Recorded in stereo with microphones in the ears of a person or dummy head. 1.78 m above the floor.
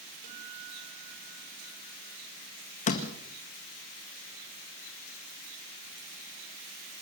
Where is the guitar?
50° right (ahead or behind), 5.5 m.